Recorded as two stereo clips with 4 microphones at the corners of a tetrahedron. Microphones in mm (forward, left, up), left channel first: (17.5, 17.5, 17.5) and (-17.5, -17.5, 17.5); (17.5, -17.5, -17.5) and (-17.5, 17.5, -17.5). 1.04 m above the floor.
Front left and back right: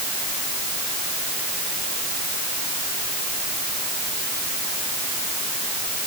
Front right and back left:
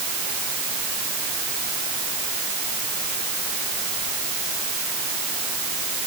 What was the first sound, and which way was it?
Only background noise.